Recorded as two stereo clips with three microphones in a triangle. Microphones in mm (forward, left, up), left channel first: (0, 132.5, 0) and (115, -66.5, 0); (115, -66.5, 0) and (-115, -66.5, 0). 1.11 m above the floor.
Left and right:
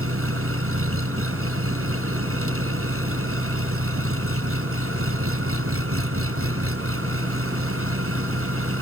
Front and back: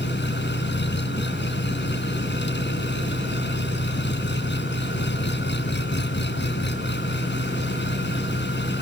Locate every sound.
0.0 s an engine running: 40° right